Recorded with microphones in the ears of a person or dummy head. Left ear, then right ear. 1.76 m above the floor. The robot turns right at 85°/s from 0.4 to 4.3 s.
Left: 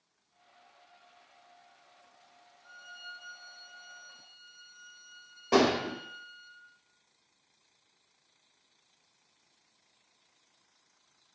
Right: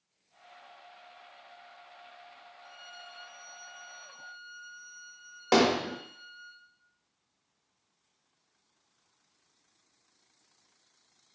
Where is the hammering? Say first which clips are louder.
Right 1 dB; 40° right (ahead or behind), 1.1 m.